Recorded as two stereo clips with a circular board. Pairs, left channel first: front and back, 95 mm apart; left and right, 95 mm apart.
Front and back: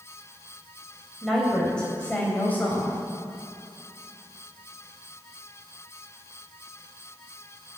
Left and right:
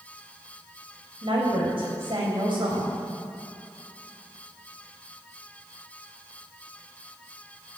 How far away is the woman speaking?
About 3 m.